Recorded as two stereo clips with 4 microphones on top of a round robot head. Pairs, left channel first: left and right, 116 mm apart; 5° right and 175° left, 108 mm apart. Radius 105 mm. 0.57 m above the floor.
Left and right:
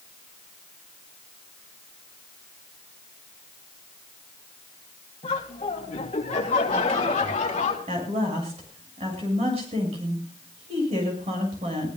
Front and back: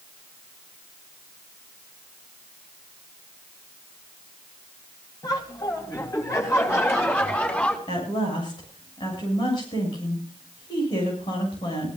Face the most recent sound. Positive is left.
turn(degrees=-55)